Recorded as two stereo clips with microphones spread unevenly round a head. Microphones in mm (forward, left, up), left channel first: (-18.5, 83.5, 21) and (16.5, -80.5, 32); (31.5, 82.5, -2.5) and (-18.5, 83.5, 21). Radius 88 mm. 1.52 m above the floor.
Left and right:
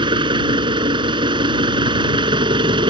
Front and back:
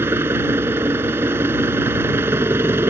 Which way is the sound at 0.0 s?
140° right.